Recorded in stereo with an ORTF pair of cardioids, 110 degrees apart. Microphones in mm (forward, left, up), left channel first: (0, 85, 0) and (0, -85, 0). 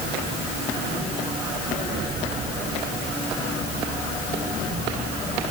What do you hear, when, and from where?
Only background noise.